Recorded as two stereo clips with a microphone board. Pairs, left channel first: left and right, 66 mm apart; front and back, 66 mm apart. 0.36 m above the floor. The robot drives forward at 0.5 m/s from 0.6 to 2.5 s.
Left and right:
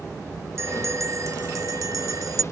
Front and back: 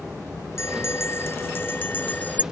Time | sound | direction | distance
0.6 | a bell | 45° right | ?